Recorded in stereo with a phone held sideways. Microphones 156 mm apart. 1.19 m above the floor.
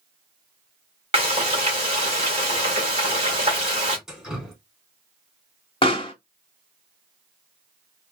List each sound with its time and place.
1.1 s frying: 45° right (ahead or behind), 2 m
4.1 s dripping: 5° right (ahead or behind), 1.7 m
5.8 s a pop: 35° left (ahead or behind), 1.1 m